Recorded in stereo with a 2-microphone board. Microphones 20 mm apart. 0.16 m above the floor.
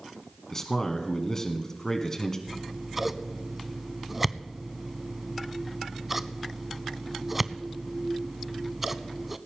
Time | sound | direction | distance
0.5 | a man speaking | 25° left (ahead or behind) | 1.2 m
2.5 | scissors | 10° right (ahead or behind) | 0.5 m